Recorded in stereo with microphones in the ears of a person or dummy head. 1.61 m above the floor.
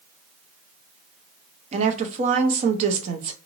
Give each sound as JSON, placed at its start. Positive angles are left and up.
{"t": 1.7, "sound": "a woman speaking", "side_deg": -35, "distance_m": 0.7}